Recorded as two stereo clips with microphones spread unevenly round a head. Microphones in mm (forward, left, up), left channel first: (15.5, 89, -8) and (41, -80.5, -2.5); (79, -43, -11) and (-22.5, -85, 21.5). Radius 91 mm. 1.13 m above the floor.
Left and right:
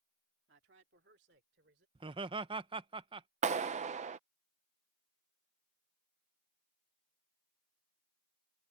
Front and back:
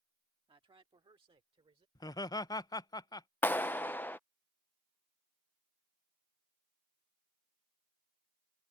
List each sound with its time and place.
0.5 s a man speaking: 115° right; by 1.9 s 120° right
1.9 s laughter: 20° right
3.4 s a clap: 40° right